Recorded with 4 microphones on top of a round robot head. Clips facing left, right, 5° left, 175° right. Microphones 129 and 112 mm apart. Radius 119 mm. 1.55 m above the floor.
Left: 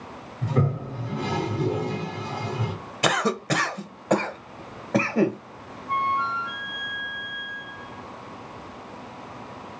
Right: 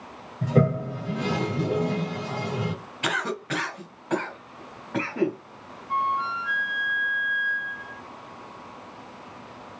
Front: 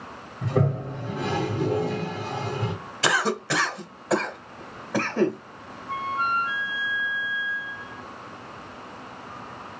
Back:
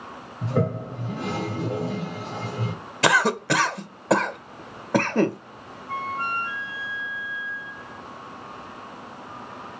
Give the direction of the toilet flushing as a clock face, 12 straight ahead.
3 o'clock.